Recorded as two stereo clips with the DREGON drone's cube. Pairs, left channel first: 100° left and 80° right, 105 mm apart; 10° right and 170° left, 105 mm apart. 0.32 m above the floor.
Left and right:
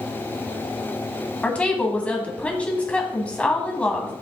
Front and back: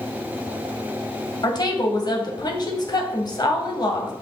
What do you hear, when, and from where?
1.4 s a woman speaking: 25° left, 1.9 m